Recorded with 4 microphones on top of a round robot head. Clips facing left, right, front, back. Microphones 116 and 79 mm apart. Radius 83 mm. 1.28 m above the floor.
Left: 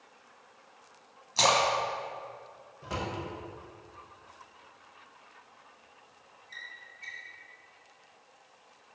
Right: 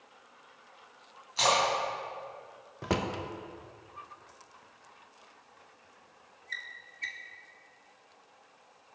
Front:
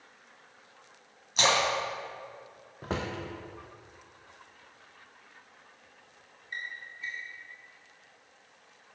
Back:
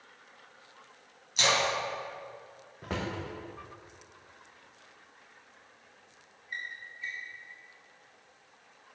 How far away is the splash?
About 2.5 m.